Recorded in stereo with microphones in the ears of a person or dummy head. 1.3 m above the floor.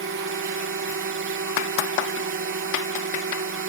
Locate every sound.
0.0 s a drone: 60° right (ahead or behind)